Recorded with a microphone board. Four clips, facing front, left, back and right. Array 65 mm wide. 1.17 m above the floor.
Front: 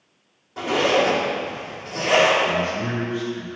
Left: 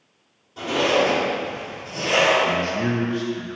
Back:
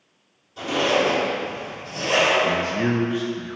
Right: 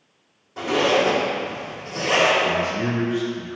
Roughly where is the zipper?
Ahead right.